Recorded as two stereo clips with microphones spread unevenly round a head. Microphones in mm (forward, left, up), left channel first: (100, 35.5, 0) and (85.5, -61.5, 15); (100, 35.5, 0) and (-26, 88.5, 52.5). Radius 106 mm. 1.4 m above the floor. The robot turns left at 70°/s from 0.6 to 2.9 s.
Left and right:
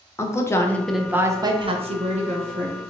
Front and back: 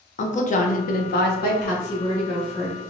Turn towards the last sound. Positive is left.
turn(degrees=-145)